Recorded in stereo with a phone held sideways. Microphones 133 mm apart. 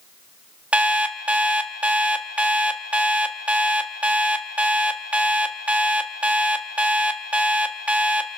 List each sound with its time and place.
0.7 s an alarm clock: 10° right (ahead or behind), 1.2 m